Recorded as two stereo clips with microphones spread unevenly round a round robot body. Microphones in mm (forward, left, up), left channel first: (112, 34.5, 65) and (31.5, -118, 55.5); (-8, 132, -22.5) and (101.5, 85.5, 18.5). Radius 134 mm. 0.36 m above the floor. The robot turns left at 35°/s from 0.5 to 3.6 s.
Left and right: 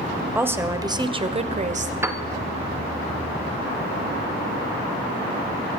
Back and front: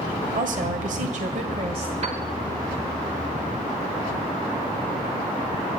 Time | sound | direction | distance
0.3 | a woman speaking | 45° right | 1.6 m
2.0 | a piano | 60° right | 1.2 m